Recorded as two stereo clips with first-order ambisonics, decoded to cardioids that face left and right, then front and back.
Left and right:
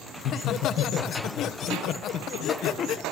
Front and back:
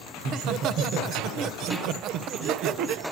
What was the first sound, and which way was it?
Laughter, 140° left.